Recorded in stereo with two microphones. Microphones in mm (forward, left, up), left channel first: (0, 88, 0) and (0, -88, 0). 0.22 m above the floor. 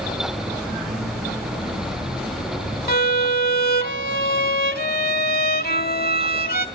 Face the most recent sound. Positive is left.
turn(degrees=60)  # may be behind; listen again after turning